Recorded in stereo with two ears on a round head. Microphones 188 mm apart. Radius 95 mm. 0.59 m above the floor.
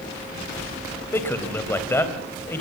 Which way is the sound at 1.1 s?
10° left (ahead or behind).